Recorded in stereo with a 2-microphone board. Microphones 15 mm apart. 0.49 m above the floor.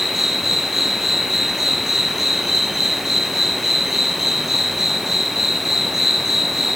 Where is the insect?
10° right (ahead or behind), 3.5 m.